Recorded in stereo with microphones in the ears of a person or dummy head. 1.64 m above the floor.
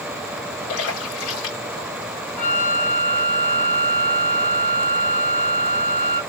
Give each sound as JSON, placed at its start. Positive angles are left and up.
{"t": 0.7, "sound": "a splash", "side_deg": 75, "distance_m": 2.5}
{"t": 2.4, "sound": "a flute", "side_deg": 5, "distance_m": 1.1}